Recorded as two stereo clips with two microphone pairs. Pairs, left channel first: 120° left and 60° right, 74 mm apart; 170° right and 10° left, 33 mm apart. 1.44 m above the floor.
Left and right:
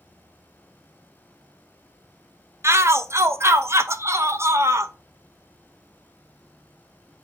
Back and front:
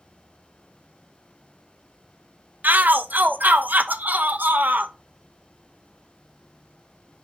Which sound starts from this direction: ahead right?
An insect, at 0.0 s.